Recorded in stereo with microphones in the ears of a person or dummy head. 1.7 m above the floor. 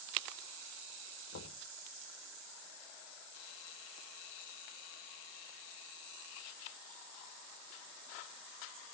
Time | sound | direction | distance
1.3 | knocking | 75° left (ahead or behind) | 4 m